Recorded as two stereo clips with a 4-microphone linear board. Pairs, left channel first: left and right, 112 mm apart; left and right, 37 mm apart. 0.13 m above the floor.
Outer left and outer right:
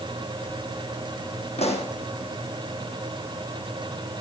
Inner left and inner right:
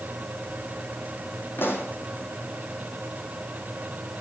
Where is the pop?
70° left (ahead or behind), 3 m.